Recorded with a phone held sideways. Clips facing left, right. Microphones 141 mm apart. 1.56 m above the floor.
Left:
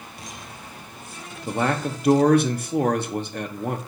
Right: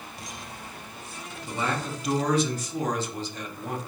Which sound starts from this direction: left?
A man speaking, at 1.5 s.